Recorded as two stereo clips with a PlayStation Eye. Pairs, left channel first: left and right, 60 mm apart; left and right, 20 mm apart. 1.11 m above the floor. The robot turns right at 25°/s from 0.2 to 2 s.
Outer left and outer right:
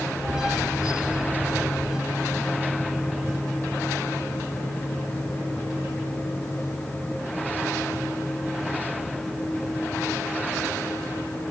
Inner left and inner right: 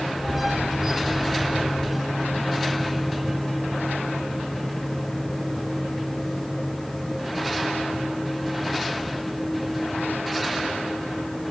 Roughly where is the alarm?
No alarm in this recording.